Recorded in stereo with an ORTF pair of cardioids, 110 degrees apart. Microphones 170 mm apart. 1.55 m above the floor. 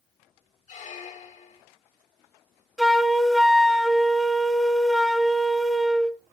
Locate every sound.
0.7 s a squeak: 45° left, 1.4 m
2.8 s a flute: straight ahead, 1.1 m